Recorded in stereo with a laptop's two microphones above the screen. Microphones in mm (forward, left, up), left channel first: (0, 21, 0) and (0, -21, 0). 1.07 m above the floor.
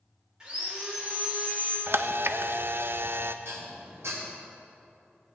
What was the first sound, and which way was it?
Sawing, 20° right (ahead or behind).